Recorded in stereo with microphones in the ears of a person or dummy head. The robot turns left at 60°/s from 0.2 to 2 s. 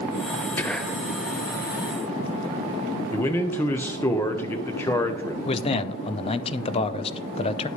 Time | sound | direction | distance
0.6 | whispering | 10° left (ahead or behind) | 0.6 m
3.1 | a man speaking | 10° left (ahead or behind) | 0.9 m
5.5 | a man speaking | 25° left (ahead or behind) | 0.5 m